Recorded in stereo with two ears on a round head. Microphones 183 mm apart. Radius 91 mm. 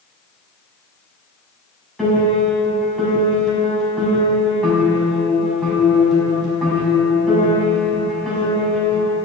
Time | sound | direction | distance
2.0 | a piano | centre (ahead or behind) | 6 m